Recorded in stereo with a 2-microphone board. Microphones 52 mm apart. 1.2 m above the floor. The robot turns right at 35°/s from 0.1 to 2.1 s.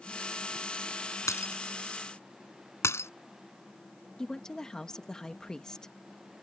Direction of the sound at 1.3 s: 75° left (ahead or behind).